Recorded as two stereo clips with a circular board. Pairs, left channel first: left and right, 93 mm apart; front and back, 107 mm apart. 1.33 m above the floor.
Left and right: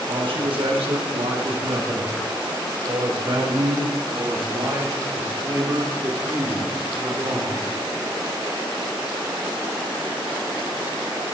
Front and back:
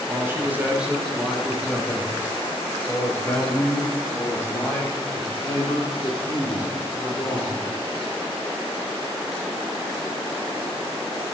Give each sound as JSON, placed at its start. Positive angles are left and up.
{"t": 0.1, "sound": "a man speaking", "azimuth_deg": -115, "distance_m": 1.4}